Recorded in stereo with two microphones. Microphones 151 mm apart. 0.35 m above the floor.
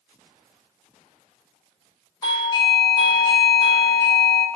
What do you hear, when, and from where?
2.2 s a doorbell: 30° left (ahead or behind), 1.7 m